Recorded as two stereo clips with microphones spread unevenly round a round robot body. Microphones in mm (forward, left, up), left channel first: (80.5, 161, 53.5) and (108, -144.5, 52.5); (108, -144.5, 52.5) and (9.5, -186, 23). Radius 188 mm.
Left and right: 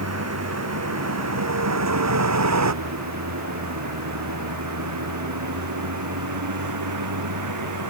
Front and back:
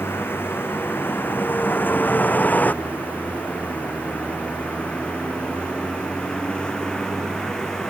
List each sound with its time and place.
0.0 s a vehicle: 45° right; by 7.9 s 60° right